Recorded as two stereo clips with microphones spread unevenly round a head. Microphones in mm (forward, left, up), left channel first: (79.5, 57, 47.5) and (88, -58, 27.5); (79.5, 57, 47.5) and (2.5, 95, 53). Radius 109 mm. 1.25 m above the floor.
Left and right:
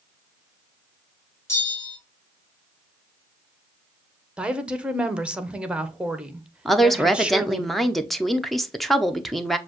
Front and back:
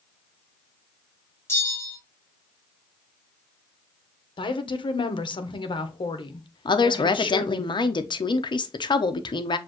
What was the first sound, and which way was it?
A bell, 30° left.